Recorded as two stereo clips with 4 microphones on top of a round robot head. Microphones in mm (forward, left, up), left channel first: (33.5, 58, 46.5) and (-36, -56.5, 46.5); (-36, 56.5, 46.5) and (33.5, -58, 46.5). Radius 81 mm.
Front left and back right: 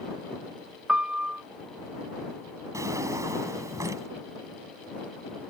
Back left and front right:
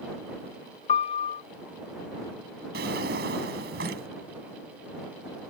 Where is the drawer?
50° right.